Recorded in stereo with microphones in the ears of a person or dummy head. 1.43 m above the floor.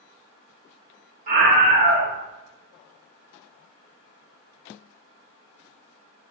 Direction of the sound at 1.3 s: 40° right (ahead or behind).